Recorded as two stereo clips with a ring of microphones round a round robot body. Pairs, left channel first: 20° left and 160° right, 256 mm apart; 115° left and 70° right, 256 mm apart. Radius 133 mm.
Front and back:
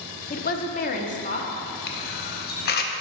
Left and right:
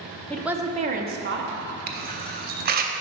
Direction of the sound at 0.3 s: 35° left.